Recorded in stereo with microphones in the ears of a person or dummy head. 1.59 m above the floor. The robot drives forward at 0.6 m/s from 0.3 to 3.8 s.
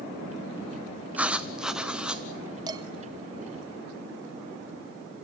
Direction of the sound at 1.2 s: Centre (ahead or behind).